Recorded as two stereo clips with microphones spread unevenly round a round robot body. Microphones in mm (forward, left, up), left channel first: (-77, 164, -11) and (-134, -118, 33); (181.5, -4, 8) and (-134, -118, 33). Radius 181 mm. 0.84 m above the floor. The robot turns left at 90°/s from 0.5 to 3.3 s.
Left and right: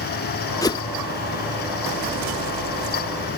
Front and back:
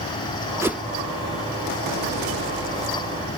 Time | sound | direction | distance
0.6 | a whoosh | 120° left | ?